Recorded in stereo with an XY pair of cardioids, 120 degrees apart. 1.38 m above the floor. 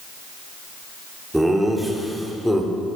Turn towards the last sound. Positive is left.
turn(degrees=10)